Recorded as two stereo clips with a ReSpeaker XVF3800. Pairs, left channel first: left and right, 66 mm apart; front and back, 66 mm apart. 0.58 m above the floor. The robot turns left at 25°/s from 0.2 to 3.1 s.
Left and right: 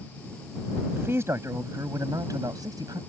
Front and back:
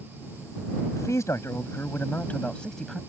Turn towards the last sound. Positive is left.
turn(degrees=-90)